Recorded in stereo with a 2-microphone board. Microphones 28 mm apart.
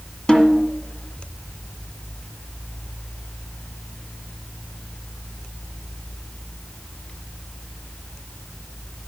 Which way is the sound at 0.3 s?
30° left (ahead or behind).